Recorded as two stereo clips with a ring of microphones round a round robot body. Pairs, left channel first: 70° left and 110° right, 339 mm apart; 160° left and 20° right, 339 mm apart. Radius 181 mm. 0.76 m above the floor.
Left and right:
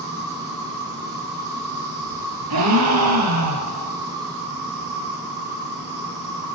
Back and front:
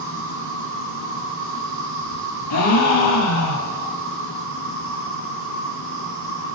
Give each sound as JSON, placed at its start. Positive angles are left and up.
{"t": 0.0, "sound": "an insect", "azimuth_deg": -75, "distance_m": 4.0}
{"t": 2.5, "sound": "a gasp", "azimuth_deg": -155, "distance_m": 4.0}